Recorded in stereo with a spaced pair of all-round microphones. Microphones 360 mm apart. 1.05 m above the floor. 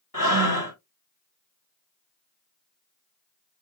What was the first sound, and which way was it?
Breathing, 60° left (ahead or behind).